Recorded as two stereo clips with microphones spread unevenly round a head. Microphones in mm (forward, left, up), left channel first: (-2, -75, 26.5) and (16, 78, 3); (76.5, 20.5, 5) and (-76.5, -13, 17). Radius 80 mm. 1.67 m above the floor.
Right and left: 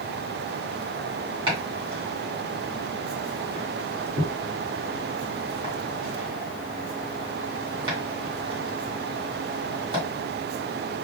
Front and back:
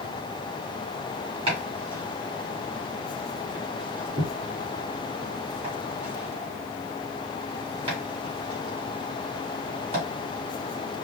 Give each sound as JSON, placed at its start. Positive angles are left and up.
{"t": 1.5, "sound": "chopping", "azimuth_deg": 145, "distance_m": 3.0}